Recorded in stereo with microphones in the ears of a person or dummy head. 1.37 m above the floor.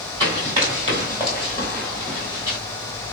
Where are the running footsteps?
20° right (ahead or behind), 1.4 m; by 2.6 s 20° left (ahead or behind), 1.5 m.